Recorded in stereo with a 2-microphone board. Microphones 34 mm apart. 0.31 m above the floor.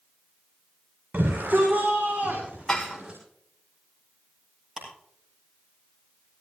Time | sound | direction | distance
1.1 | a shout | 55° right (ahead or behind) | 6 m
2.7 | dishes clattering | 15° left (ahead or behind) | 5.5 m
4.8 | ticking | 5° right (ahead or behind) | 9.5 m